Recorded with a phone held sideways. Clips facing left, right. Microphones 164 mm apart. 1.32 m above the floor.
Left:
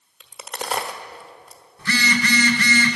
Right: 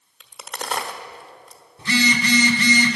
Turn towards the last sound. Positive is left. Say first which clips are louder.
# right 2 dB
turn(degrees=-20)  # may be behind; listen again after turning